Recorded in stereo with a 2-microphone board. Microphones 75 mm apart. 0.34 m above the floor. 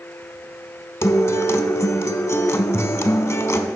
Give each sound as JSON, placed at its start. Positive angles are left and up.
{"t": 1.0, "sound": "a guitar", "side_deg": 40, "distance_m": 0.5}